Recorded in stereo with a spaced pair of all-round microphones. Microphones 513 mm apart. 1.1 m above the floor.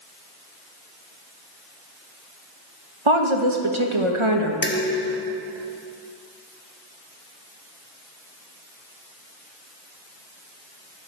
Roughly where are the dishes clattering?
Left.